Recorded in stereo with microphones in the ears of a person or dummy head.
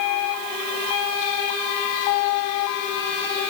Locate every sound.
Only background noise.